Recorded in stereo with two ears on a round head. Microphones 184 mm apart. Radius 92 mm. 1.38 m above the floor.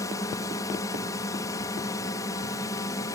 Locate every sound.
0.0 s a drone: 15° left (ahead or behind)